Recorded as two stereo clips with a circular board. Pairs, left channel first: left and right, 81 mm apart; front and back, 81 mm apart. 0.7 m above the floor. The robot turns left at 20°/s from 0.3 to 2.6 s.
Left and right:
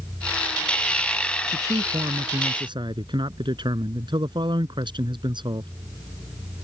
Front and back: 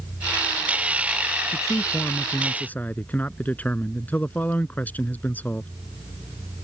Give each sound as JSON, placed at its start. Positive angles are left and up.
{"t": 1.5, "sound": "a man speaking", "azimuth_deg": -50}